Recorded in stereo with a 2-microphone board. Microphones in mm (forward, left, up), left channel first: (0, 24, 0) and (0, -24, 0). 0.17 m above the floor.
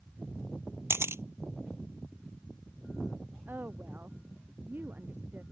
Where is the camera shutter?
70° right (ahead or behind).